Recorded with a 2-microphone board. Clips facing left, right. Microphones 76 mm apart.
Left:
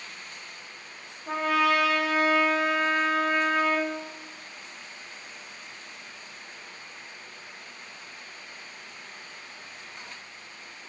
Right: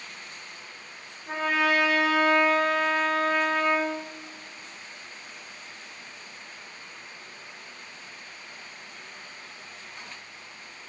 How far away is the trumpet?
About 3 m.